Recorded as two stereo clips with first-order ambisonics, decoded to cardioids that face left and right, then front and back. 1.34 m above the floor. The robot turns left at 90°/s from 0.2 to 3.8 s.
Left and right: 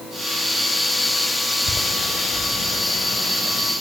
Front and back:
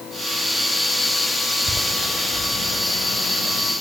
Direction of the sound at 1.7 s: 115° left.